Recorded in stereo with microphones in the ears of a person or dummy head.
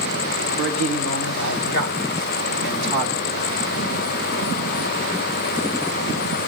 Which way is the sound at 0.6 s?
65° left (ahead or behind).